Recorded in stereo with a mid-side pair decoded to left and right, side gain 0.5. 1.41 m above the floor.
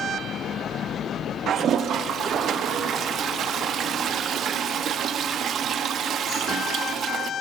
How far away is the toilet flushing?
About 0.5 m.